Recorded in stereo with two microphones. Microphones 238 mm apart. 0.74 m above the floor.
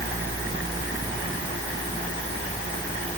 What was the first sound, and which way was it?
Only background noise.